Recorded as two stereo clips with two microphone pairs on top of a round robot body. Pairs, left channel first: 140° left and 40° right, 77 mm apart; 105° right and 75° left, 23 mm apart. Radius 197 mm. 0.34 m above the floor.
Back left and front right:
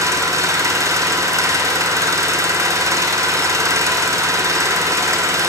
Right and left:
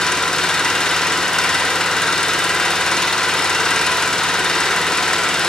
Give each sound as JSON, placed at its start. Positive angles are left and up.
{"t": 0.0, "sound": "an engine running", "azimuth_deg": -55, "distance_m": 2.0}